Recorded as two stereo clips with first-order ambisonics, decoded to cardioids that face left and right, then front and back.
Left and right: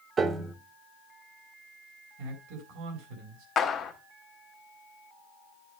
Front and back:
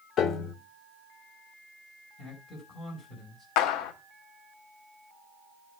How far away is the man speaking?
About 5 m.